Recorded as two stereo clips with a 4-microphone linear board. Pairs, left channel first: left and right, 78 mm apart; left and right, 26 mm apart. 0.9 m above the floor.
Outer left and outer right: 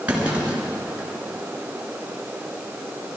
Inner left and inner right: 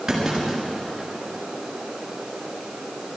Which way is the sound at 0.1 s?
20° right (ahead or behind).